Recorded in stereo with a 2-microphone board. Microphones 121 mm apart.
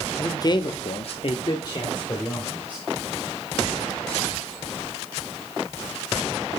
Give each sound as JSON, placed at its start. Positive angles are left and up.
{"t": 0.2, "sound": "a man speaking", "side_deg": 20, "distance_m": 1.2}